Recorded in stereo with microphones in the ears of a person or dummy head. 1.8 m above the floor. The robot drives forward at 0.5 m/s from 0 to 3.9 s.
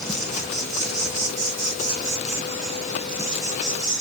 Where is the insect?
Centre (ahead or behind), 1.0 m.